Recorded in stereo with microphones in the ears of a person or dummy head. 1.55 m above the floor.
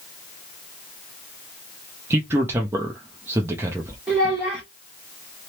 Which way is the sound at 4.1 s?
5° right (ahead or behind).